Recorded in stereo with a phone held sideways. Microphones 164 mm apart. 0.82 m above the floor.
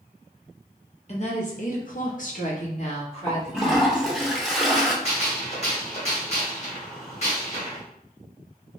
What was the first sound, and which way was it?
A woman speaking, 40° left (ahead or behind).